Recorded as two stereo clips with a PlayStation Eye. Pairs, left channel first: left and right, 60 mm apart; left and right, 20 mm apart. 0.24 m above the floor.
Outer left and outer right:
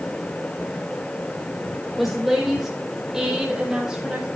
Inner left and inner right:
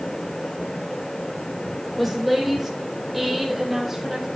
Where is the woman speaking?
Centre (ahead or behind), 8.5 m; by 4.3 s 15° right (ahead or behind), 7.5 m.